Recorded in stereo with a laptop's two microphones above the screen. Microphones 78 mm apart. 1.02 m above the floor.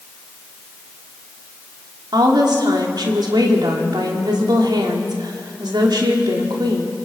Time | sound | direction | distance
2.1 | a woman speaking | 65° right (ahead or behind) | 3 m